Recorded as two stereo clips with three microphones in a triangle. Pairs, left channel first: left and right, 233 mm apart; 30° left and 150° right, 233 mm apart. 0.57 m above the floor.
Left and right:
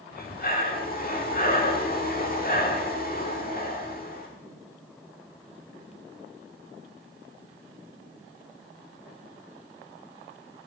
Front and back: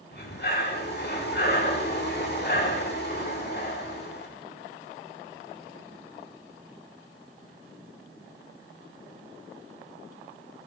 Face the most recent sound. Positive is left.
turn(degrees=55)